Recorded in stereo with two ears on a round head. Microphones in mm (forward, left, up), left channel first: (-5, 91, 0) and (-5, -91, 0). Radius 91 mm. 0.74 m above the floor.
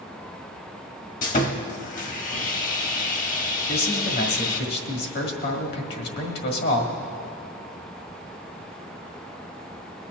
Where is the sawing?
40° left (ahead or behind), 1.0 m.